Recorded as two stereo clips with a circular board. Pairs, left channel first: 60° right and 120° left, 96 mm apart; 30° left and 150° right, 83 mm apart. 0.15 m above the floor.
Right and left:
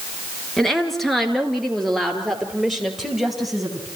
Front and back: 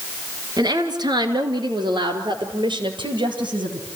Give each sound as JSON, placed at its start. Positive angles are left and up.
{"t": 0.6, "sound": "a woman speaking", "azimuth_deg": -150, "distance_m": 2.5}